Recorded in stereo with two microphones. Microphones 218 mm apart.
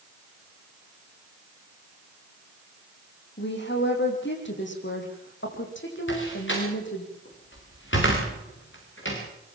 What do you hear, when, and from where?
3.4 s a woman speaking: 55° left (ahead or behind), 6 m; by 7.1 s 60° left (ahead or behind), 8 m
6.1 s a door slam: 60° left (ahead or behind), 8 m